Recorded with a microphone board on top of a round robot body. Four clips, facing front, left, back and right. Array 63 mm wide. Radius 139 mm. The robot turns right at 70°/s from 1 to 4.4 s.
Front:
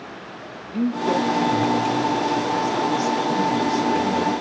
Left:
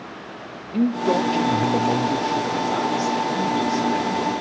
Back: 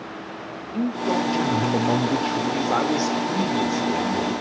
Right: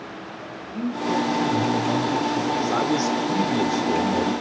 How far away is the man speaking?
About 1.9 m.